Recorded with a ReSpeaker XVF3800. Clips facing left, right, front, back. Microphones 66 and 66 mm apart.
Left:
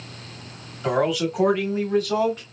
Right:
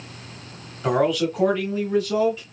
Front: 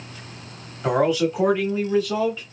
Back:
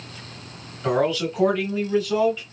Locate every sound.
0.8 s a man speaking: 30° right, 1.0 m; by 2.4 s 80° left, 1.4 m